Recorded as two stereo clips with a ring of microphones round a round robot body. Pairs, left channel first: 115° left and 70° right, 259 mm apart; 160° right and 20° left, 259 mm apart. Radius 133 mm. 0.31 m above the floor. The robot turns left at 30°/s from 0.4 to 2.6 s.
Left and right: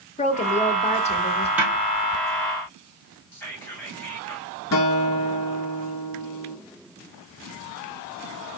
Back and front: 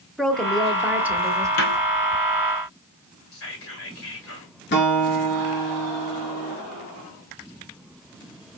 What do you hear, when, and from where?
0.2 s a woman speaking: 120° left, 0.9 m; by 1.5 s 85° left, 0.9 m
1.6 s a snare drum: 150° right, 1.8 m; by 1.8 s 155° right, 1.8 m
3.3 s whispering: 165° right, 2.5 m
4.7 s a guitar: 150° left, 1.1 m